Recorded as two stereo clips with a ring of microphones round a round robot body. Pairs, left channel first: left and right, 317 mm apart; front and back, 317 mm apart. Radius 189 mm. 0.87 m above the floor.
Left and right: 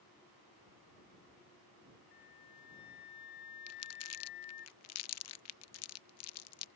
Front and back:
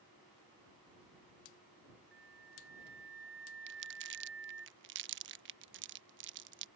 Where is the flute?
125° left.